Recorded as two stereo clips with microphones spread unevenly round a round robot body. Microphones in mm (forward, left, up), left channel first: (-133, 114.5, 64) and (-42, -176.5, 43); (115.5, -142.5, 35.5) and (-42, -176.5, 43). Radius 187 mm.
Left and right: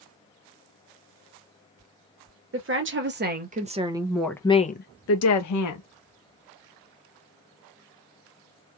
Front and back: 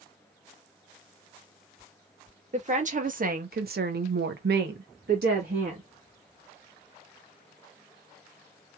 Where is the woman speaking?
120° right, 1.5 m; by 5.9 s 130° left, 1.0 m.